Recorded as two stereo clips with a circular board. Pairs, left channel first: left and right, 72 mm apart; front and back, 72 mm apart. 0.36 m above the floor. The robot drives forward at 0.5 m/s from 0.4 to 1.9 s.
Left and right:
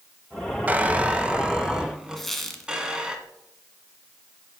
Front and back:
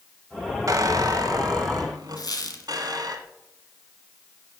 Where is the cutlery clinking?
I don't hear cutlery clinking.